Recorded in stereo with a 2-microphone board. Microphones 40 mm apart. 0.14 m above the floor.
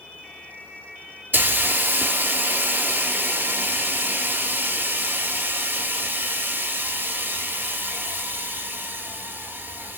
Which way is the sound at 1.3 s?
50° right (ahead or behind).